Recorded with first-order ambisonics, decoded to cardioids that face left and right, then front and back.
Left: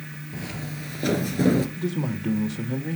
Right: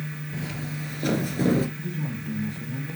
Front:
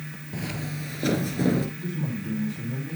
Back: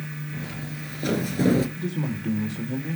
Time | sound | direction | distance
0.3 | footsteps | 5° left | 1.9 m
1.8 | a man speaking | 115° left | 2.5 m